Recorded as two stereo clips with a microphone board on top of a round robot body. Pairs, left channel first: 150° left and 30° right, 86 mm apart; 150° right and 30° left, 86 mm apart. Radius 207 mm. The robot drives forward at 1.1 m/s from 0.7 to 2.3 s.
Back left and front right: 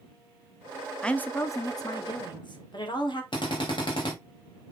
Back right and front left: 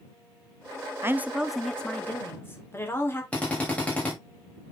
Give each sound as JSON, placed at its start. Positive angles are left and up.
{"t": 1.0, "sound": "a woman speaking", "azimuth_deg": 75, "distance_m": 1.2}
{"t": 3.3, "sound": "a drill", "azimuth_deg": 135, "distance_m": 3.5}